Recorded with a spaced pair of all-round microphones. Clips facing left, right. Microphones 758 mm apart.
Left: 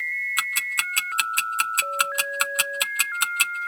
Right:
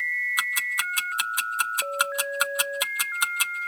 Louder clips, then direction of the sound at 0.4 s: Left 1 dB; 55° left (ahead or behind).